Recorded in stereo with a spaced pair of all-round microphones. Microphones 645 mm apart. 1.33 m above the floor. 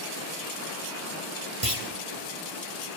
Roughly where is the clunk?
Right.